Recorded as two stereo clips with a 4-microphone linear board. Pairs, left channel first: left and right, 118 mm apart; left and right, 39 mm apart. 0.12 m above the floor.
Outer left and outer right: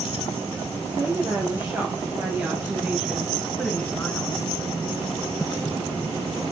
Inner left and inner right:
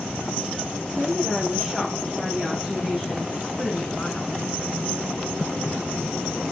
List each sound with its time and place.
0.8 s a woman speaking: 25° right (ahead or behind), 3.5 m; by 4.5 s 25° left (ahead or behind), 1.4 m